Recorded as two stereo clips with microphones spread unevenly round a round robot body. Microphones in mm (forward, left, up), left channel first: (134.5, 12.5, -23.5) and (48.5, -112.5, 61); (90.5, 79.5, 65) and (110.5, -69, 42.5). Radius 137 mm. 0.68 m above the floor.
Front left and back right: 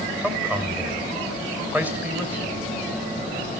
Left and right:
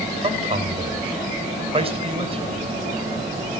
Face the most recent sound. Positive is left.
turn(degrees=-35)